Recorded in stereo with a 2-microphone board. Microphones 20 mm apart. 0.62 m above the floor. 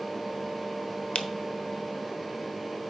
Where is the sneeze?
No sneeze in this recording.